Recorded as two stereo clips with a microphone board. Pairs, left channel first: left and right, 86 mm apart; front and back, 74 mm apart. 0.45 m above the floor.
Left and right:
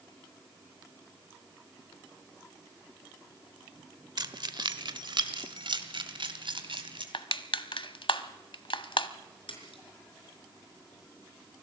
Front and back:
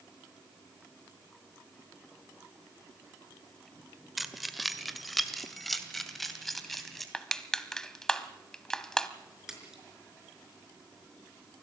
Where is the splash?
95° left, 5 m.